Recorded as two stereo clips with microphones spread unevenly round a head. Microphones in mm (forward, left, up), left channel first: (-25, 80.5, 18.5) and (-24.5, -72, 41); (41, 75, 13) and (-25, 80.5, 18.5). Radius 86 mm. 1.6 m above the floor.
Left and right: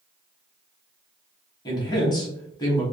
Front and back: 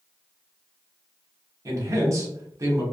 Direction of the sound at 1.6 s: 155° left.